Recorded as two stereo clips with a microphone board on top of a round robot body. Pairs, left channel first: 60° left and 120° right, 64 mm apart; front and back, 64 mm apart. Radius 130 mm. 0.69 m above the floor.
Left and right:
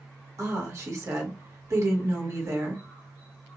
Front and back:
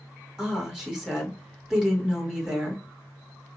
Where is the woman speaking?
100° right, 1.8 m.